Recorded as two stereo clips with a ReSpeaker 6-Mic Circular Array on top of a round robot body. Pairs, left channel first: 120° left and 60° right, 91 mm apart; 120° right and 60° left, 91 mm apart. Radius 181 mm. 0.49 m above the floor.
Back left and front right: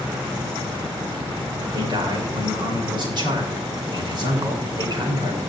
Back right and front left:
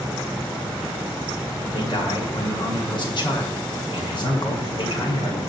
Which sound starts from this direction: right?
A man speaking, at 1.7 s.